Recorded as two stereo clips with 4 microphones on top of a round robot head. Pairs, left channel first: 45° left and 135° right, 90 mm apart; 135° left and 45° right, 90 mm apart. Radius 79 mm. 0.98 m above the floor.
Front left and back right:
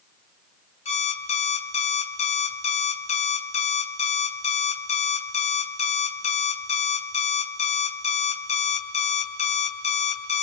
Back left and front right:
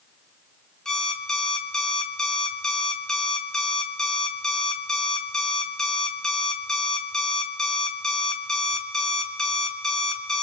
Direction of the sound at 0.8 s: 50° left.